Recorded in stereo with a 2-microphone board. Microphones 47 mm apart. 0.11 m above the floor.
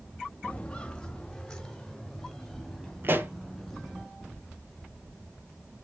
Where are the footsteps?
25° left (ahead or behind), 0.7 m; by 4.0 s centre (ahead or behind), 3.5 m.